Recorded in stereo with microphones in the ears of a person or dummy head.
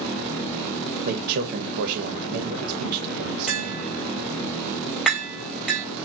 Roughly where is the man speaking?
Right.